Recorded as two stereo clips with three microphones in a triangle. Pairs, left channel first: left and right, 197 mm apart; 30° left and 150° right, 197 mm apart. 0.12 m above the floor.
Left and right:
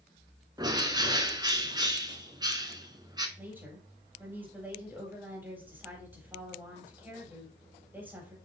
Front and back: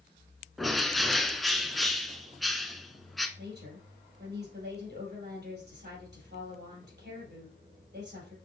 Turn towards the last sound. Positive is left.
turn(degrees=-170)